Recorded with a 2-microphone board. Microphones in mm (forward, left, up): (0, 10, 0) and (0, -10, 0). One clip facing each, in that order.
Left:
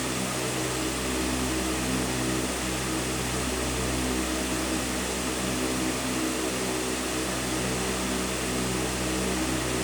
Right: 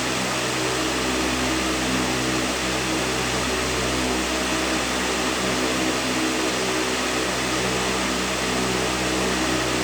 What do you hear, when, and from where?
Only background noise.